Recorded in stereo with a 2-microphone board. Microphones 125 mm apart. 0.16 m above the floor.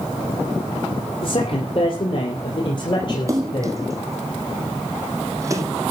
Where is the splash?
25° right (ahead or behind), 1.7 m.